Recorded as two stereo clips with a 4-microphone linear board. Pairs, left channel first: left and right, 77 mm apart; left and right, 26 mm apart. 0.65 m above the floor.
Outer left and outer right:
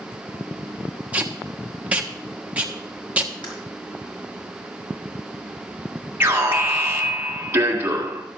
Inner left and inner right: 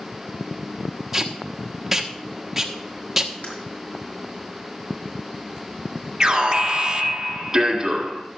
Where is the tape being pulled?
15° right (ahead or behind), 1.2 m.